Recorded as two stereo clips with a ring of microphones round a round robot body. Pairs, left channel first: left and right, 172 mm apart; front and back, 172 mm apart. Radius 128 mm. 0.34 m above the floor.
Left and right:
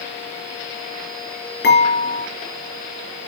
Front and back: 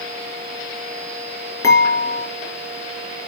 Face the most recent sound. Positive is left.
turn(degrees=75)